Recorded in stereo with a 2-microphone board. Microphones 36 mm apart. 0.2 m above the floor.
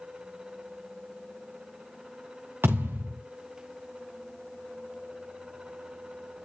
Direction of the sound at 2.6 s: 75° right (ahead or behind).